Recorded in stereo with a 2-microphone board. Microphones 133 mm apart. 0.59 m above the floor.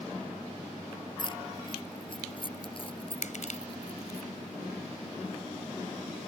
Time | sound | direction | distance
1.2 | keys jangling | 35° left (ahead or behind) | ?
3.2 | crushing | 70° left (ahead or behind) | ?